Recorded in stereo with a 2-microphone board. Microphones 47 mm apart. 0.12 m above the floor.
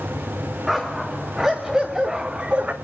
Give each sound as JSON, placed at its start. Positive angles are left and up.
{"t": 0.7, "sound": "a dog barking", "side_deg": -5, "distance_m": 4.0}